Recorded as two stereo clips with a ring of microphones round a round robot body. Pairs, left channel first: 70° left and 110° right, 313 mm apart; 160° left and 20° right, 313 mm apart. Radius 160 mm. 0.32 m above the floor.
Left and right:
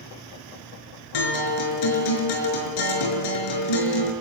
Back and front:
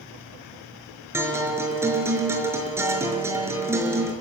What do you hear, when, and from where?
1.1 s a guitar: 60° left, 5 m